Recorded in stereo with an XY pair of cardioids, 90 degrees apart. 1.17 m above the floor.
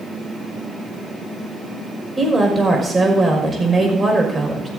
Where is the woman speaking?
25° right, 5.5 m.